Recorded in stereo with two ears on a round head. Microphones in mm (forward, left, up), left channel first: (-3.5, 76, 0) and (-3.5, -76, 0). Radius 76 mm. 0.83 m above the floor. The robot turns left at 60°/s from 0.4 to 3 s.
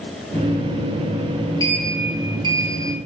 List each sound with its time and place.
1.6 s a sliding door: 25° left, 0.8 m; by 3.0 s 60° right, 0.8 m